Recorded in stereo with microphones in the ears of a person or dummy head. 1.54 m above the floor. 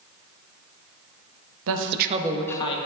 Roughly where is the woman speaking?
Right.